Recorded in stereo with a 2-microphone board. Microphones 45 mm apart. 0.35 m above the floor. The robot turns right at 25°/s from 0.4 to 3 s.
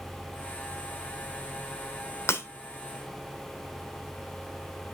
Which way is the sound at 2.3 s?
60° left (ahead or behind).